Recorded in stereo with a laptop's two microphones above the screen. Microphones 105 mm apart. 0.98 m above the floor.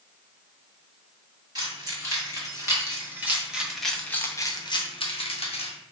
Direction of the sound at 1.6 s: 40° right (ahead or behind).